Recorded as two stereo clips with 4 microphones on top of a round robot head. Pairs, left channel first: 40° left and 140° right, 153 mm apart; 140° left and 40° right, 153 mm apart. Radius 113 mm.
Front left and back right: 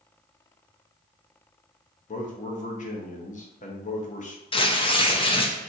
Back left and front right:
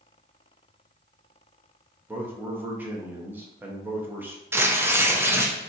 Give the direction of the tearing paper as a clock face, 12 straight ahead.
11 o'clock.